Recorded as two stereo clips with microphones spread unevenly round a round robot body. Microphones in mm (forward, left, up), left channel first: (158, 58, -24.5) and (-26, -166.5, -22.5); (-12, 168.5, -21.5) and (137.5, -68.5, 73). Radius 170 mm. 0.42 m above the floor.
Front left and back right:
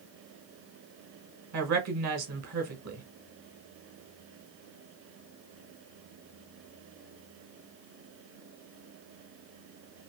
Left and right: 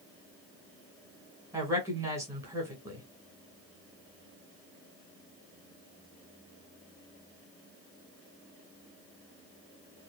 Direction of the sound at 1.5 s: 150° right.